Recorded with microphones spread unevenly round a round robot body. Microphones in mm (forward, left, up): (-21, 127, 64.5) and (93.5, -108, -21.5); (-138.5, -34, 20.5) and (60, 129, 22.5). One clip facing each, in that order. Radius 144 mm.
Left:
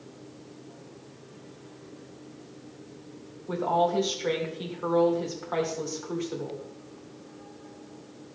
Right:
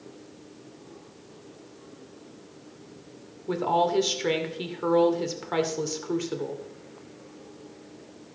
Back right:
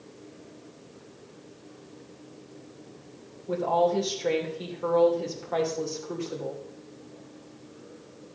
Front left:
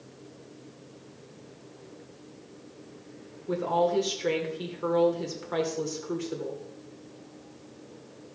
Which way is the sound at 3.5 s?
30° right.